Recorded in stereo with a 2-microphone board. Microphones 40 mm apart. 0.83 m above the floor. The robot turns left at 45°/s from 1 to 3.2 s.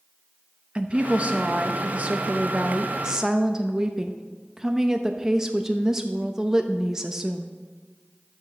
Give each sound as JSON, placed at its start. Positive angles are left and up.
{"t": 0.8, "sound": "a woman speaking", "azimuth_deg": -55, "distance_m": 0.6}